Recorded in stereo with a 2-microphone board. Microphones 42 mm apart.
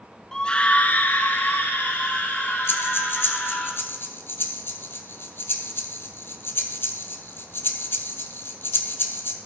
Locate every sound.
0.3 s a scream: 15° left (ahead or behind), 1.2 m; by 3.7 s 65° left (ahead or behind), 5 m
2.7 s breathing: 65° left (ahead or behind), 1.0 m